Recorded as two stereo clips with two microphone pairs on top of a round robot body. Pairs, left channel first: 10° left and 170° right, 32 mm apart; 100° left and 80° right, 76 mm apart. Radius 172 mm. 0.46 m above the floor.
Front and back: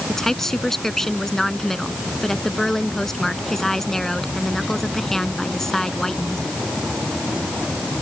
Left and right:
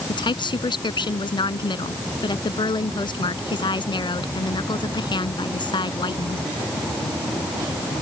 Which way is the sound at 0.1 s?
90° left.